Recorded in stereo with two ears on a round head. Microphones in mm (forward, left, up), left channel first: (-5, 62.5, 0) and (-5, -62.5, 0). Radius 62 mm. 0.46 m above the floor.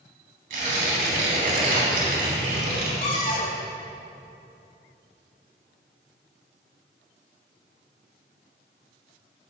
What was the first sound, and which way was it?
Tearing paper, 65° right (ahead or behind).